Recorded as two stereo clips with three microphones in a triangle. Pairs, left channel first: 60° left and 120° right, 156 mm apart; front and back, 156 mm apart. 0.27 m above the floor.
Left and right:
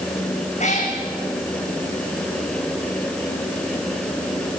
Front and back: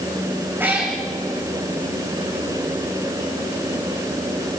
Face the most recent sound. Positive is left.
turn(degrees=105)